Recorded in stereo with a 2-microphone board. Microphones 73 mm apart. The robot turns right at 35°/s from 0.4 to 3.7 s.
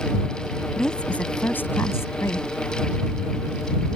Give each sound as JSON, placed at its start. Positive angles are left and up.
{"t": 0.8, "sound": "a woman speaking", "azimuth_deg": 10}